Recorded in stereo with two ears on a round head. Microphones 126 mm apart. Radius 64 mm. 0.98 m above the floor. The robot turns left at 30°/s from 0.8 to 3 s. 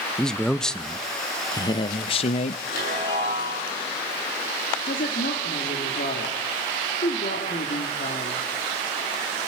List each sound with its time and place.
0.2 s a man speaking: 175° left, 0.6 m; by 2.6 s 125° left, 0.6 m
2.7 s a chime: 70° left (ahead or behind), 8 m; by 3.6 s 80° left, 8 m
4.8 s a woman speaking: 60° left (ahead or behind), 2.5 m